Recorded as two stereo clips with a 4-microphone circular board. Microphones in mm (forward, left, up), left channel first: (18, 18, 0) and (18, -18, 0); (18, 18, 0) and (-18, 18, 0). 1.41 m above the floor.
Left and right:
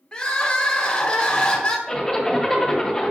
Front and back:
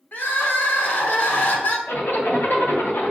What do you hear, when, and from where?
0.1 s crying: 25° left, 0.9 m
1.9 s a zipper: 10° left, 1.4 m